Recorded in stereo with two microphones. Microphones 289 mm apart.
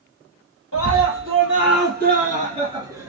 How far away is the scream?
About 1.7 m.